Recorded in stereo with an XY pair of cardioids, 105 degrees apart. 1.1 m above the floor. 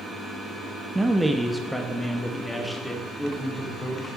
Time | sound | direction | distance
0.9 | a man speaking | 20° right | 0.7 m